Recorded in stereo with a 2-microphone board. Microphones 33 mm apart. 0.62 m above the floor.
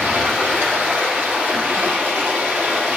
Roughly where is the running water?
Right.